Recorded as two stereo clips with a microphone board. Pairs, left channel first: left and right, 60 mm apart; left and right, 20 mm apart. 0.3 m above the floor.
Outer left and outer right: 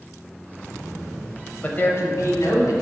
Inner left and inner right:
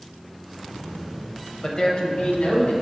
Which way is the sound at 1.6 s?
25° left (ahead or behind).